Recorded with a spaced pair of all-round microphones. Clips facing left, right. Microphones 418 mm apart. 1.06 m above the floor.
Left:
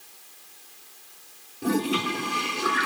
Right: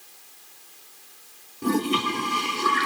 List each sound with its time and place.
1.6 s a toilet flushing: 10° right (ahead or behind), 1.2 m